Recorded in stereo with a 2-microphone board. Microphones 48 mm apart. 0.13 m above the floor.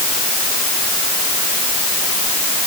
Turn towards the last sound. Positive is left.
No sound to turn to.